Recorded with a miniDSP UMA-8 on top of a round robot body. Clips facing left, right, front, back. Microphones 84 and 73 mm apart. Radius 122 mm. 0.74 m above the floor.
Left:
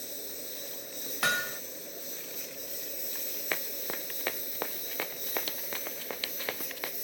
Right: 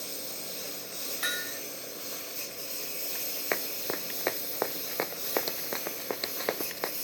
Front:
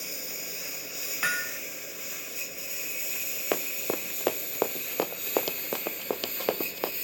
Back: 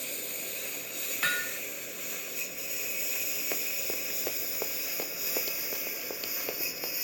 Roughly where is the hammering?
Left.